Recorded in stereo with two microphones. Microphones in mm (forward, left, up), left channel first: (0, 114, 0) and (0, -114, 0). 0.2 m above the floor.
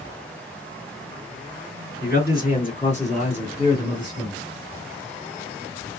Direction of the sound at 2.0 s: 45° left (ahead or behind).